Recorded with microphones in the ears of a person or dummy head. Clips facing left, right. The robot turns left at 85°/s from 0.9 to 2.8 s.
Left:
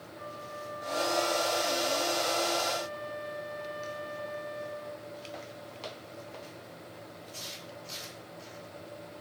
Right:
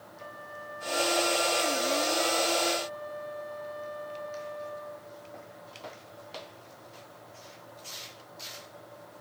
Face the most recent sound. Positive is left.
turn(degrees=50)